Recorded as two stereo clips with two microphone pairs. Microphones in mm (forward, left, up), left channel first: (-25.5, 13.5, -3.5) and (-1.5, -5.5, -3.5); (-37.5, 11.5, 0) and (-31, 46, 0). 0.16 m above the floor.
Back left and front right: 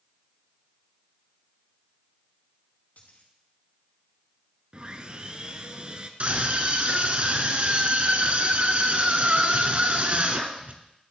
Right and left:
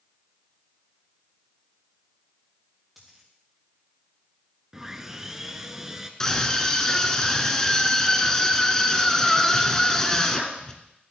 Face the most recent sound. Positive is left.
turn(degrees=-30)